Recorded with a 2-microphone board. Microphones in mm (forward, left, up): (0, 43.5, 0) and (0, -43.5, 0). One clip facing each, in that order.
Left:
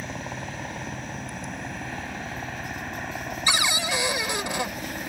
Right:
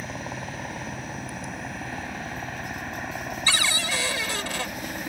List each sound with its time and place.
0.0 s a helicopter: centre (ahead or behind)
3.5 s a cupboard door: 20° left (ahead or behind)